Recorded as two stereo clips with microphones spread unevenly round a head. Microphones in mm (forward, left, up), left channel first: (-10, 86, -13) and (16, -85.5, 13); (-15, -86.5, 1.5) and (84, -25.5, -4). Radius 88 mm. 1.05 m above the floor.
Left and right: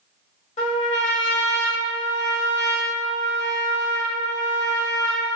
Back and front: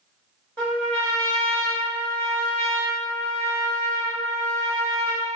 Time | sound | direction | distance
0.6 | a trumpet | 135° left | 0.9 m